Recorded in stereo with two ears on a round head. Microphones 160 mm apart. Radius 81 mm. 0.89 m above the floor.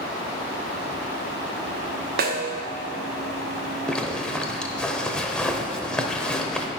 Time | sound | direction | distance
2.2 | a snare drum | 55° right (ahead or behind) | 0.8 m
3.9 | a zipper | 5° left (ahead or behind) | 0.8 m